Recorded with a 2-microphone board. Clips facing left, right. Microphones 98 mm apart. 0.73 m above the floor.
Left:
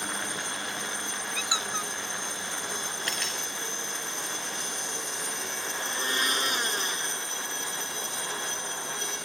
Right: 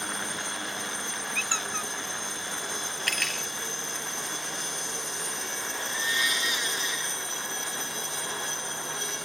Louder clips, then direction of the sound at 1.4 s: Left 1 dB; 10° left (ahead or behind).